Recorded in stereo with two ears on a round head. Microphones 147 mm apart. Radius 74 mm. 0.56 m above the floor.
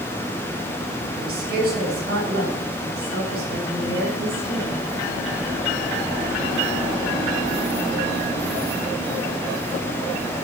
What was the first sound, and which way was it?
A woman speaking, 60° right (ahead or behind).